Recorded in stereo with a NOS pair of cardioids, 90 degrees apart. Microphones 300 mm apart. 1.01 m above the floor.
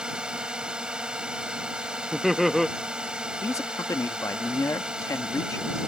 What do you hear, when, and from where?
0.0 s a drone: 5° right
2.1 s laughter: straight ahead
3.4 s a man speaking: 10° left